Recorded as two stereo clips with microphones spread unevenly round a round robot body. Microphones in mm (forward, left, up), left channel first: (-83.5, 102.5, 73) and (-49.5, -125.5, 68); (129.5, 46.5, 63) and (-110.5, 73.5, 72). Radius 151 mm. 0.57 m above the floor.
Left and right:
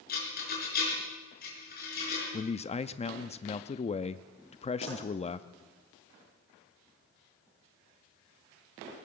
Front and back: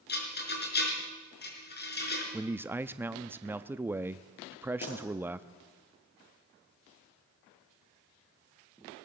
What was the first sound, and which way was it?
A rattle, 40° left.